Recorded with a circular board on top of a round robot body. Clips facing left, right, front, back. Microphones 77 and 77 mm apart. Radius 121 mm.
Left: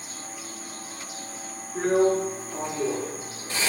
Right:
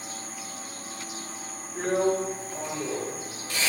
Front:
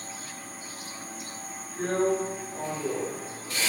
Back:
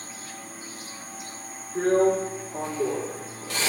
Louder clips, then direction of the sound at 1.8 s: Left 4 dB, back 5 dB; 150° left.